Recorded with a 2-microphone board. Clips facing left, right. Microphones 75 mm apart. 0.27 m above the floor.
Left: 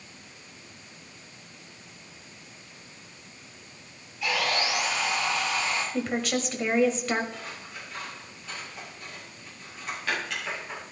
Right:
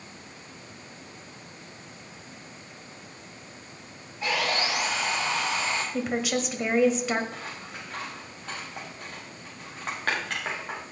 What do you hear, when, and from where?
4.2 s sawing: 35° right (ahead or behind), 6.5 m
5.9 s a woman speaking: 5° right (ahead or behind), 1.5 m
7.3 s scissors: 50° right (ahead or behind), 6 m